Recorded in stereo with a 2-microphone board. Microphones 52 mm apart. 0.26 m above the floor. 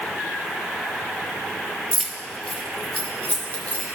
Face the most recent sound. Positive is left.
turn(degrees=30)  # may be behind; listen again after turning